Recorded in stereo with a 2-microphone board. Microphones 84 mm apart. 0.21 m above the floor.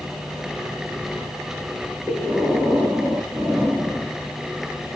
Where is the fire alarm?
I don't hear a fire alarm.